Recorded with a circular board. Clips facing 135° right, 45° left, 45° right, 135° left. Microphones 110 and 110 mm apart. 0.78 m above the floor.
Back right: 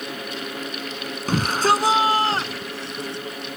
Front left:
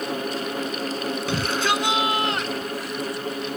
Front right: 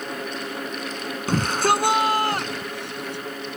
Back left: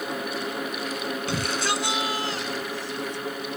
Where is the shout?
85° right; by 3.2 s 70° right.